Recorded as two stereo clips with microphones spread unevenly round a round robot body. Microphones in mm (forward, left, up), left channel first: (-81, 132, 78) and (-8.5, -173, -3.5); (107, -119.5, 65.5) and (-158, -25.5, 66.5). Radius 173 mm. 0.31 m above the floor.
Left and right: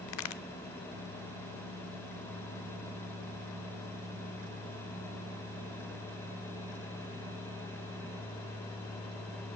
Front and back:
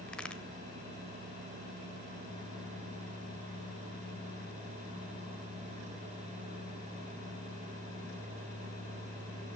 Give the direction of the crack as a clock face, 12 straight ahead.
10 o'clock.